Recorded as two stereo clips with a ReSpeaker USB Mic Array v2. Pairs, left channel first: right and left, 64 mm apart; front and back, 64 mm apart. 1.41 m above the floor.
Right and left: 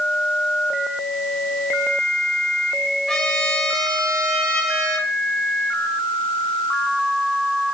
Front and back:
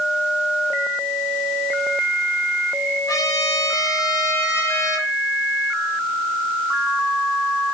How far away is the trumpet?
About 5.5 m.